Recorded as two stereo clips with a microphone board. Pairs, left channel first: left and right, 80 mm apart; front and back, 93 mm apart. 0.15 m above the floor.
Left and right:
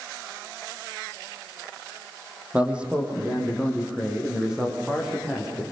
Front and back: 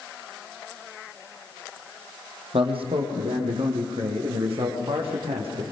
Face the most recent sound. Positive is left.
turn(degrees=-175)